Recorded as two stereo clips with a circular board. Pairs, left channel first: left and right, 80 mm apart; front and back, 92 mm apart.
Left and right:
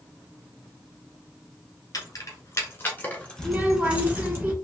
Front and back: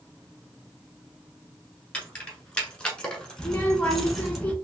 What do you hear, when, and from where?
1.9 s keys jangling: 75° left, 1.4 m; by 4.4 s 90° right, 1.0 m
3.4 s a child speaking: 55° right, 0.8 m